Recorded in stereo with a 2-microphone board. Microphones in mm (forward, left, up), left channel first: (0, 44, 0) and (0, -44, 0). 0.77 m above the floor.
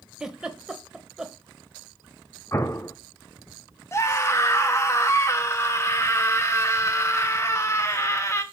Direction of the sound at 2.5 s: 30° left (ahead or behind).